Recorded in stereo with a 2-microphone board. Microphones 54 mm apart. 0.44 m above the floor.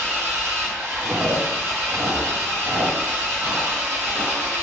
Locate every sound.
0.0 s an engine running: 55° right (ahead or behind), 0.9 m
1.0 s chewing: 60° right (ahead or behind), 0.6 m